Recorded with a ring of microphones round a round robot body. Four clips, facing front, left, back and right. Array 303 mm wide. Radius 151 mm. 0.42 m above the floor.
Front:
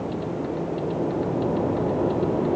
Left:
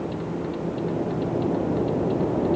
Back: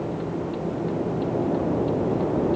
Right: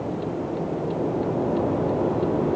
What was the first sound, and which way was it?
Only background noise.